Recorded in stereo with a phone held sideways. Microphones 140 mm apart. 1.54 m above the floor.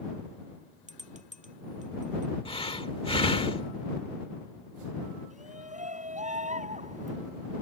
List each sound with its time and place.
0.9 s a bell: 60° right (ahead or behind)
2.5 s breathing: 40° left (ahead or behind)
5.3 s a shout: 60° right (ahead or behind)